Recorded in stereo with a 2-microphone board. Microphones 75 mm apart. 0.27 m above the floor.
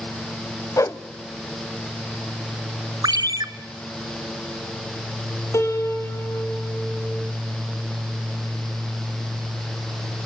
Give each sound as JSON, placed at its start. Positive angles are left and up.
{"t": 0.8, "sound": "a whoosh", "side_deg": 45, "distance_m": 0.8}
{"t": 3.0, "sound": "a ringtone", "side_deg": -65, "distance_m": 1.3}
{"t": 5.5, "sound": "a piano", "side_deg": 40, "distance_m": 4.0}